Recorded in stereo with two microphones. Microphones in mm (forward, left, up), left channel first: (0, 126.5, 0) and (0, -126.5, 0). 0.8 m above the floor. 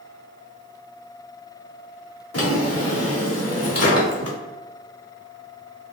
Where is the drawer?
75° left (ahead or behind), 0.7 m.